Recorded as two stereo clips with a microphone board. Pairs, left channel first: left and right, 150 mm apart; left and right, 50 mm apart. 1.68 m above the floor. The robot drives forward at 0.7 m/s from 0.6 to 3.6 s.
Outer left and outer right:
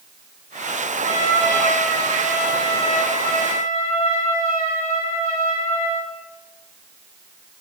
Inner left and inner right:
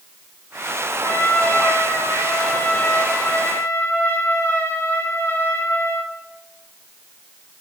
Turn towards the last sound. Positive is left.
turn(degrees=45)  # may be behind; listen again after turning